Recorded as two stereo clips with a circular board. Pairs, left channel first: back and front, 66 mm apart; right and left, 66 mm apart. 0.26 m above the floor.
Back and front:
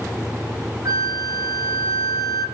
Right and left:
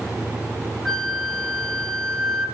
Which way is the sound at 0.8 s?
5° right.